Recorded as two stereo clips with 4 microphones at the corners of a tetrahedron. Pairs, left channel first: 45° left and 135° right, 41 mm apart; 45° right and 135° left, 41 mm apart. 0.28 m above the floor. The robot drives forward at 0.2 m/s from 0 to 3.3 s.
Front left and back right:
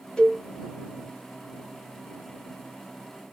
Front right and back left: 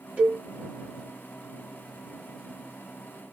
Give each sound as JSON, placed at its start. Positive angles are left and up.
{"t": 0.2, "sound": "a cowbell", "azimuth_deg": 95, "distance_m": 1.7}